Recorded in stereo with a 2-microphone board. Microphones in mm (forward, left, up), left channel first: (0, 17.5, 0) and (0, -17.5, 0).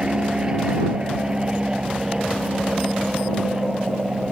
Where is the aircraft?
25° right (ahead or behind); by 4.3 s 20° right (ahead or behind).